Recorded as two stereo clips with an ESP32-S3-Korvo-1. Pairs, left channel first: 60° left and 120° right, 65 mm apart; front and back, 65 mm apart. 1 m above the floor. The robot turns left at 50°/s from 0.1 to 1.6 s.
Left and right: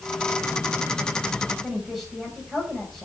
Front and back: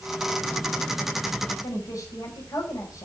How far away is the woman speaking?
About 6 m.